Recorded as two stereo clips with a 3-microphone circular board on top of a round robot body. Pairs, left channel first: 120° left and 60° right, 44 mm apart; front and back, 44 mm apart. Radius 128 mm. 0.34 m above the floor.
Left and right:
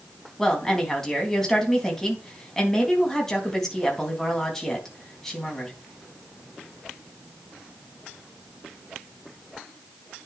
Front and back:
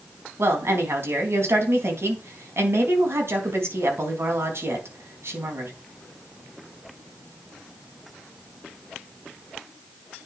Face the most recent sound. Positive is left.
turn(degrees=-160)